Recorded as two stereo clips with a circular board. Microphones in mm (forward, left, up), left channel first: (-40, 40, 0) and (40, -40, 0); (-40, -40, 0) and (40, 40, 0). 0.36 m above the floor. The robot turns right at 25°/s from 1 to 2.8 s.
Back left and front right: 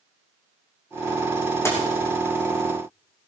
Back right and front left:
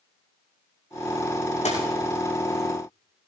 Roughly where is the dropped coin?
Behind.